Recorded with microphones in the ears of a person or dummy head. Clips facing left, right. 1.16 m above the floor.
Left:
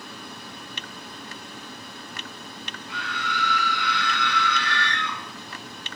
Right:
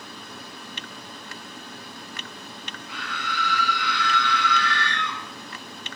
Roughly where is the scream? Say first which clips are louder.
Left 2 dB; left.